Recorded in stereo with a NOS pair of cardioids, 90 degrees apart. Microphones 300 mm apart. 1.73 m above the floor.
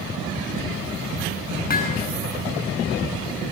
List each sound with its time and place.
1.7 s hammering: 30° left, 9 m